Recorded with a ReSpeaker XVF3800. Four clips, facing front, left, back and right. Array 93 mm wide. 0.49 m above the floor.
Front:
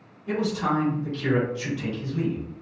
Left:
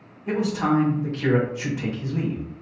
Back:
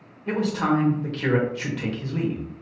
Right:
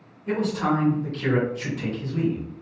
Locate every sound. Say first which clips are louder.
0.3 s a man speaking: left 1 dB, back 2 dB; 165° left, 1.9 m